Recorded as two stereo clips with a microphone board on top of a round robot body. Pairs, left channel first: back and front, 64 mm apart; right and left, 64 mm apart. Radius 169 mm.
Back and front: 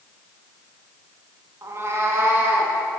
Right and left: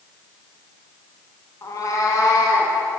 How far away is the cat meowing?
About 1.1 m.